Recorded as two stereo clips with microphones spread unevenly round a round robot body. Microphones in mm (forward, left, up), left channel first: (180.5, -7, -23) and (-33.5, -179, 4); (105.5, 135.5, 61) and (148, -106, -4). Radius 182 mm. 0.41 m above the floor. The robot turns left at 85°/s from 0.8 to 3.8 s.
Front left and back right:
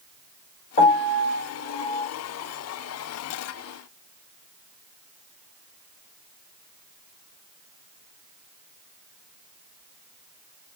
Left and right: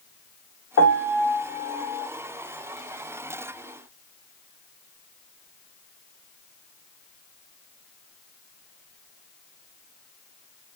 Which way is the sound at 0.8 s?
90° left.